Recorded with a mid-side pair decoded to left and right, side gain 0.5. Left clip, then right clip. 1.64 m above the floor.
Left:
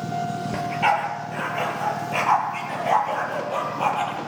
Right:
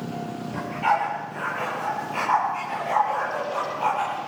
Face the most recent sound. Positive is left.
turn(degrees=50)